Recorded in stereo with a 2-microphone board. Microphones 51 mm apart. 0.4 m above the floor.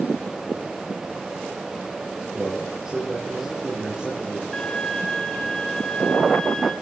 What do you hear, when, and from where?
2.3 s a man speaking: 15° right (ahead or behind), 6.5 m
4.5 s a violin: 15° left (ahead or behind), 2.5 m